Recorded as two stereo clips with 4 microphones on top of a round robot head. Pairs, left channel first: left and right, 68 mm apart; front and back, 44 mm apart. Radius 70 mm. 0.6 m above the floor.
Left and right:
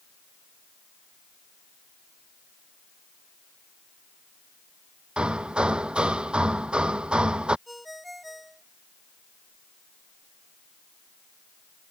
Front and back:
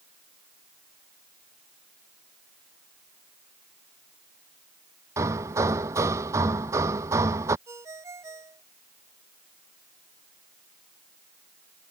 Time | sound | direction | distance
5.2 | hammering | 165° right | ?
7.7 | a ringtone | straight behind | ?